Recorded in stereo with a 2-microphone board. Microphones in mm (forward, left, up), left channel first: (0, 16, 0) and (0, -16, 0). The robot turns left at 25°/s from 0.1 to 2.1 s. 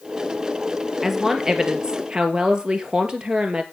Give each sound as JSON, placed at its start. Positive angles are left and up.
{"t": 1.0, "sound": "a woman speaking", "side_deg": -10, "distance_m": 2.5}